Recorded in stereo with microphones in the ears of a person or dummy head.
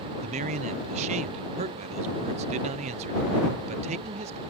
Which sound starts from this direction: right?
A man speaking, at 0.2 s.